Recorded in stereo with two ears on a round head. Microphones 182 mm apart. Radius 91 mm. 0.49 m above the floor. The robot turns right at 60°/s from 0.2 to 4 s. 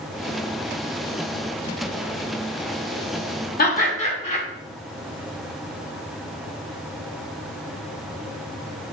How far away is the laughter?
About 0.9 m.